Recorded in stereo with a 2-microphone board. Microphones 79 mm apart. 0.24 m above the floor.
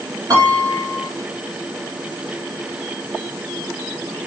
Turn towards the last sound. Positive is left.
turn(degrees=-45)  # may be behind; listen again after turning